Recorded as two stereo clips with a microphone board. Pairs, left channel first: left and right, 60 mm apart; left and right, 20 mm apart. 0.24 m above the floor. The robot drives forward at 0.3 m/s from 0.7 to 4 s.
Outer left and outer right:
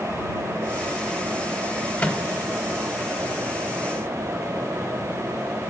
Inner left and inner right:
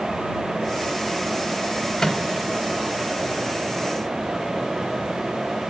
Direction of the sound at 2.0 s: 20° left (ahead or behind).